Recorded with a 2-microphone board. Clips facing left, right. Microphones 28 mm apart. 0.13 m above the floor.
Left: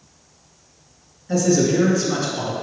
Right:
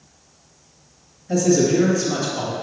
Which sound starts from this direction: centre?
A man speaking, at 1.3 s.